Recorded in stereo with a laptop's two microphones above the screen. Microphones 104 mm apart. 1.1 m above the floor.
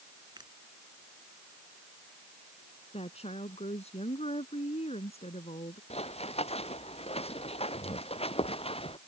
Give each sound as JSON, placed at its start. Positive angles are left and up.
{"t": 0.4, "sound": "a finger snap", "side_deg": -45}
{"t": 2.9, "sound": "a woman speaking", "side_deg": 80}
{"t": 5.9, "sound": "running footsteps", "side_deg": 80}